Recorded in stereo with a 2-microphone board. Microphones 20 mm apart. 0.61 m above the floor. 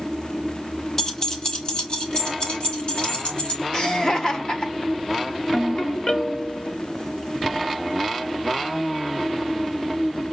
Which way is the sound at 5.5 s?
50° left (ahead or behind).